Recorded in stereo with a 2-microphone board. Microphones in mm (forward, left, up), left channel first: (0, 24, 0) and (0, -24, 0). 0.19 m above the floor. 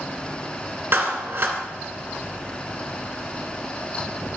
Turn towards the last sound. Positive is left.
turn(degrees=-50)  # may be behind; listen again after turning